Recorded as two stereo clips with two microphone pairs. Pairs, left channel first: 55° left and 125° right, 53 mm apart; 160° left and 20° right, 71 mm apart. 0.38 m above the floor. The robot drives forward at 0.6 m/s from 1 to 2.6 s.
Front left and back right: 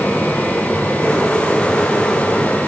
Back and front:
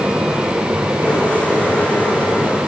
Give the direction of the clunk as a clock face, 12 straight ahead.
No clunk in this recording.